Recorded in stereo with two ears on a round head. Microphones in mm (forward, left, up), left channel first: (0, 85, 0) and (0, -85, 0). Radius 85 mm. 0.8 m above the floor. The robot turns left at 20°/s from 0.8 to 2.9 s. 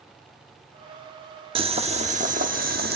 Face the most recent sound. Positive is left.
turn(degrees=-55)  # may be behind; listen again after turning